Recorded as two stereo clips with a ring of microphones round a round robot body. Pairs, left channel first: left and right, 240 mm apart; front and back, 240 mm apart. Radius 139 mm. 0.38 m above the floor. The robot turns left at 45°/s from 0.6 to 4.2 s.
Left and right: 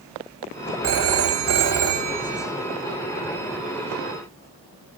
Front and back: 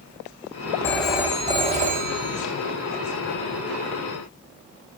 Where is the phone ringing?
80° right, 1.3 m; by 2.5 s 155° right, 1.3 m.